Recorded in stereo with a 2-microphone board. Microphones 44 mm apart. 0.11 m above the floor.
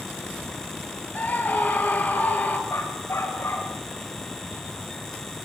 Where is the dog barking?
70° left (ahead or behind), 6 m.